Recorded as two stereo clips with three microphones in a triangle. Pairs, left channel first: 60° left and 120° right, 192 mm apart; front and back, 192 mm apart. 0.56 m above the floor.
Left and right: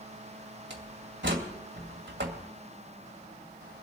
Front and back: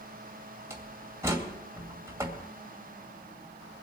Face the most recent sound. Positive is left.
turn(degrees=-105)